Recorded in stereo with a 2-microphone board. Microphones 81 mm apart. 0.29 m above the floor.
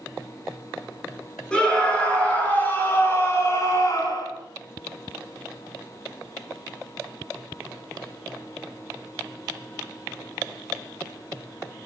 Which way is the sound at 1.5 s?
10° left (ahead or behind).